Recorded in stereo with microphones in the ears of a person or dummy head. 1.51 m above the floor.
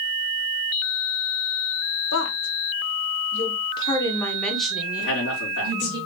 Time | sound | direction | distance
2.1 | a woman speaking | 70° left (ahead or behind) | 1.3 m
5.0 | a man speaking | 65° left (ahead or behind) | 3 m